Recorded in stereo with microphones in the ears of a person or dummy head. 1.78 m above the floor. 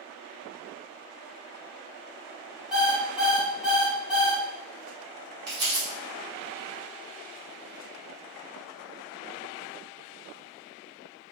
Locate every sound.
2.7 s an alarm clock: centre (ahead or behind), 0.8 m
5.5 s crumpling: 25° right (ahead or behind), 1.3 m